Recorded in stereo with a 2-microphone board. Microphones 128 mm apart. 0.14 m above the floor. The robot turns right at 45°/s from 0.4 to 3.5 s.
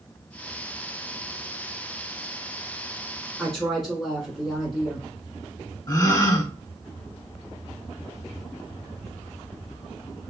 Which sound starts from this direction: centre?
A woman speaking, at 3.4 s.